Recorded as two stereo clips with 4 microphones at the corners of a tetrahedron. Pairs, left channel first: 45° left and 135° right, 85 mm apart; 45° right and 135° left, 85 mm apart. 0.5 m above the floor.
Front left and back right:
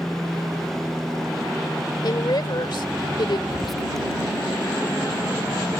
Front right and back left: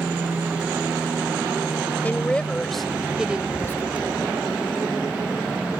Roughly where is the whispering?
Ahead right.